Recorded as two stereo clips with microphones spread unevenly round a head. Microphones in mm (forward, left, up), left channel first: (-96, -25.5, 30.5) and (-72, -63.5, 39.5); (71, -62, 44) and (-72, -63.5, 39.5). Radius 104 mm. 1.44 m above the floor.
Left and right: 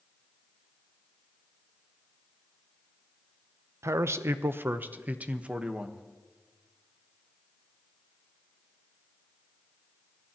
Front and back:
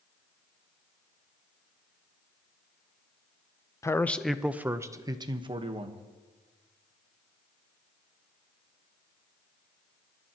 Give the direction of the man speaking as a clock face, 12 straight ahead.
2 o'clock.